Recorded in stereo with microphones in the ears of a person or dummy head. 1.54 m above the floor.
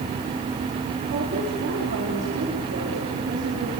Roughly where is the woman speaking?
Right.